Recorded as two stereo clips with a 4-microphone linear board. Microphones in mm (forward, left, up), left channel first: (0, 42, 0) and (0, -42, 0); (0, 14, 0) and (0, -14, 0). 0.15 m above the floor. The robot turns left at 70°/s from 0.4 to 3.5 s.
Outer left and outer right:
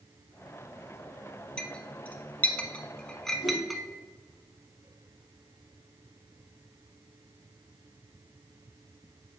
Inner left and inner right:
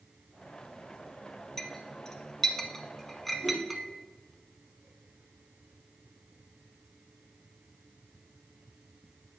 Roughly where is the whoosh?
Left.